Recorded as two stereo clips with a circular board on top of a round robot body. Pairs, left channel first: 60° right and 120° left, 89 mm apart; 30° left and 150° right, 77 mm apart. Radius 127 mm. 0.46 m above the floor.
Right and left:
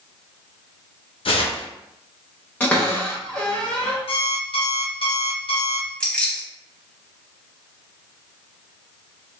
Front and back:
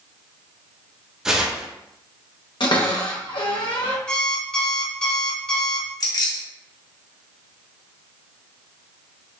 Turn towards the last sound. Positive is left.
turn(degrees=15)